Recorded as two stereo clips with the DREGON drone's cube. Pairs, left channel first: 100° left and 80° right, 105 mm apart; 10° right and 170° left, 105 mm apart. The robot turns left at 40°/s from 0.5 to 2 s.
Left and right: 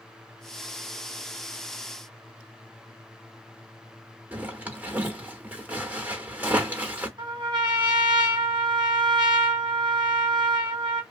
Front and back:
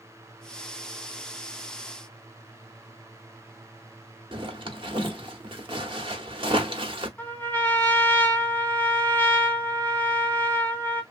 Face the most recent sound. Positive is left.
turn(degrees=-80)